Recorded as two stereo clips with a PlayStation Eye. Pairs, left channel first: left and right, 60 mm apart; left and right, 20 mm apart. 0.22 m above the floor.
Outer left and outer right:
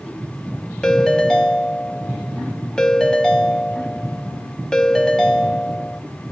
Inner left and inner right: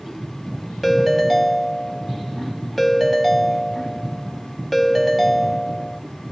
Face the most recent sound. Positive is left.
turn(degrees=10)  # may be behind; listen again after turning